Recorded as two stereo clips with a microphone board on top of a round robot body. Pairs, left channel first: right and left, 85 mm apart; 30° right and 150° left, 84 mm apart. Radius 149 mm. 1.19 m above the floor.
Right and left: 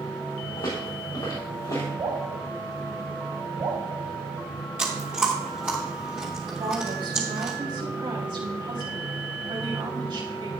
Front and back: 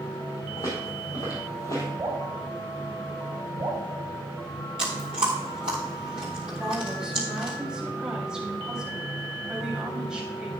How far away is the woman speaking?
About 3 m.